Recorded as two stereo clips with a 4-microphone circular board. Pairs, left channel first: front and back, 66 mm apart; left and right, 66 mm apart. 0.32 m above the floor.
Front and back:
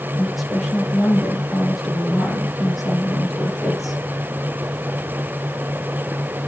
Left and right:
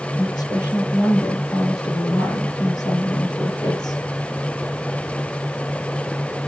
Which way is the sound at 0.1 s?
90° left.